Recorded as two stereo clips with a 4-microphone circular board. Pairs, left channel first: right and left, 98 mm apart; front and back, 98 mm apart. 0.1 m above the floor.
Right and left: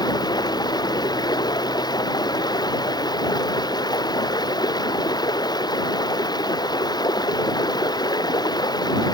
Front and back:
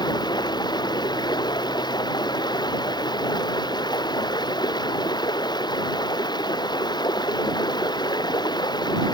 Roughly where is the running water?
Ahead right.